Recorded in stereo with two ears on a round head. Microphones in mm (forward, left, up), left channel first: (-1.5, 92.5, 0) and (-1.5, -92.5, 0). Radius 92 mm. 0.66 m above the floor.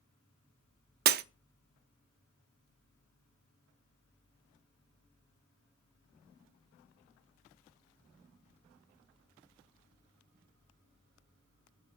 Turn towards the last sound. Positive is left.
turn(degrees=-50)  # may be behind; listen again after turning